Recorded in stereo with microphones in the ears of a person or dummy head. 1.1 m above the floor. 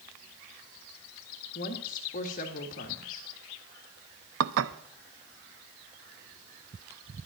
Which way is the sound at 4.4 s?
80° right.